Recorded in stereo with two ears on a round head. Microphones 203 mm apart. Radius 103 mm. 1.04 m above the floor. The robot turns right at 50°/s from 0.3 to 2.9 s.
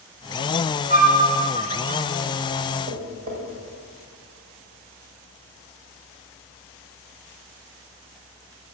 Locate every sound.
0.9 s a flute: 35° right (ahead or behind), 1.0 m; by 1.2 s 45° right (ahead or behind), 1.0 m
2.9 s tapping: 55° right (ahead or behind), 1.8 m; by 3.4 s 60° right (ahead or behind), 1.8 m